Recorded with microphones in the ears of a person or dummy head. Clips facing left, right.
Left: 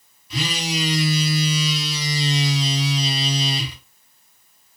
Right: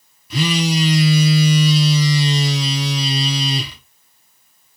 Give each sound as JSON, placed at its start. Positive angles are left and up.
{"t": 0.3, "sound": "a phone buzzing", "side_deg": -50, "distance_m": 1.0}